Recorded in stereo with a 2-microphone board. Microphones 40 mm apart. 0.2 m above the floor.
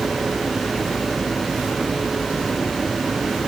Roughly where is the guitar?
I don't hear a guitar.